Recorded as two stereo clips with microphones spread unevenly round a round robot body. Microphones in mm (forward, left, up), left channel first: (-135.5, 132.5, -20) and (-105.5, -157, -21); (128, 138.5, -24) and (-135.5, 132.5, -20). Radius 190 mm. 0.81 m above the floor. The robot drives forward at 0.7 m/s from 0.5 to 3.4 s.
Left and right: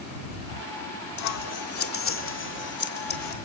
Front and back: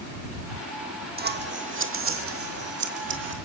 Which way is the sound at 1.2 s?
125° left.